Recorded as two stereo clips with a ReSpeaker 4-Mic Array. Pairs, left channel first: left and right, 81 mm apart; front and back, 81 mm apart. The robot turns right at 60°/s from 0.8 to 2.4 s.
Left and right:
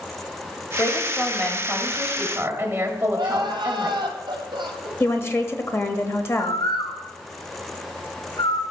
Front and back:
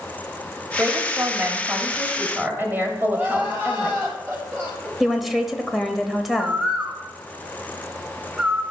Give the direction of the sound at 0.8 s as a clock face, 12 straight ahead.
8 o'clock.